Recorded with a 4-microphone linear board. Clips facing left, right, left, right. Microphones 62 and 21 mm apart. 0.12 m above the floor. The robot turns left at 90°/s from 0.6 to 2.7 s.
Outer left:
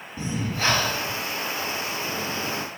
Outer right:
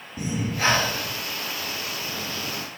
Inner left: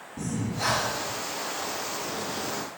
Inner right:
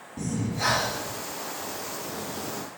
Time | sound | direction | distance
0.2 | breathing | 20° right | 2.0 m